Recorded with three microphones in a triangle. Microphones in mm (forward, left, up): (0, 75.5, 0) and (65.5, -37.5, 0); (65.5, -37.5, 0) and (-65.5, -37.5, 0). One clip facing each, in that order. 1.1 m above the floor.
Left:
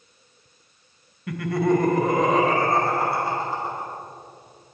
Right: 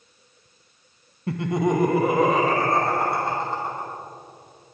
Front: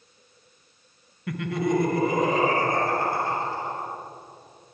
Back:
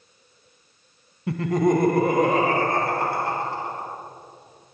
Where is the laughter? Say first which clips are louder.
Left 1 dB, back 5 dB; 115° right, 0.5 m; by 3.9 s 155° right, 2.5 m.